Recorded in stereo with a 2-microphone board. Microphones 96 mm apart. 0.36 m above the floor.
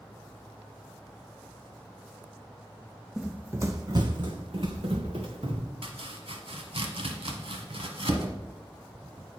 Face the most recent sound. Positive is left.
turn(degrees=-75)  # may be behind; listen again after turning